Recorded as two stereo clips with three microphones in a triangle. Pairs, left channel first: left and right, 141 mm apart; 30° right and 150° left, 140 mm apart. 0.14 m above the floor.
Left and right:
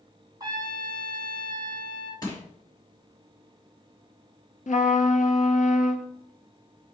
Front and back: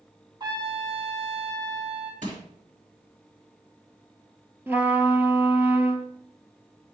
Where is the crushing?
145° left, 3.5 m.